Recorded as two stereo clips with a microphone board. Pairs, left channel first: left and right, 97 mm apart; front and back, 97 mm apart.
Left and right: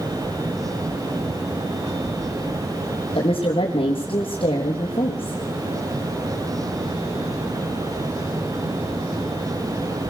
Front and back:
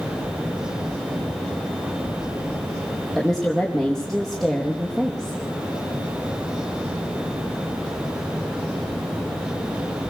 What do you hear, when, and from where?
3.1 s a woman speaking: 90° left, 4 m